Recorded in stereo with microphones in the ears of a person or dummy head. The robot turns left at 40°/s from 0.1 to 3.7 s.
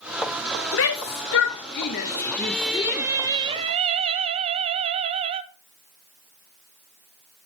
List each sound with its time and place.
0.7 s a shout: 65° left (ahead or behind), 1.0 m; by 3.0 s 15° left (ahead or behind), 1.0 m
2.0 s singing: 25° left, 0.7 m; by 5.4 s 40° right, 0.7 m